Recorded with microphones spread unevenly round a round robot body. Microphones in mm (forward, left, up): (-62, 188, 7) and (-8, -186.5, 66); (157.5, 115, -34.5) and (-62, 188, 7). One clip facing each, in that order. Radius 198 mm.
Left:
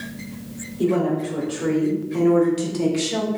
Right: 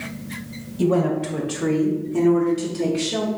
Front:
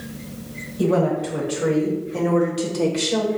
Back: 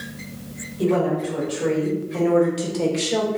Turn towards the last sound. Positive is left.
turn(degrees=70)